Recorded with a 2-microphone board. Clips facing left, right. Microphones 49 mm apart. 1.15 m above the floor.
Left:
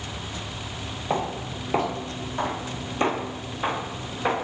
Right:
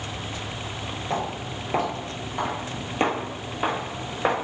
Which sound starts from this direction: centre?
Footsteps, at 1.1 s.